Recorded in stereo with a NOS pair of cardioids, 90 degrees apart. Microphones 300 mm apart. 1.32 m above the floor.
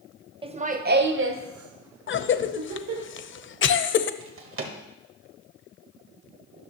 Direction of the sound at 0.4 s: 15° right.